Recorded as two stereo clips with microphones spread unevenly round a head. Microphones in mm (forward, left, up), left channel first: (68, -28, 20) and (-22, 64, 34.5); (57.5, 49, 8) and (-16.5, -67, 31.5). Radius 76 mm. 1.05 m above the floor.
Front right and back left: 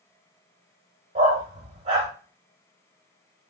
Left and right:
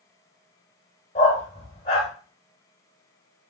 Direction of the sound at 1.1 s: 105° left.